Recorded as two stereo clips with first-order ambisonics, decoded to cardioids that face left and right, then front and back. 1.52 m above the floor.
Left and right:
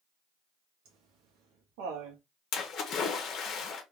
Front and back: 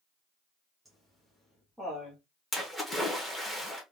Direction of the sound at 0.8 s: 95° right.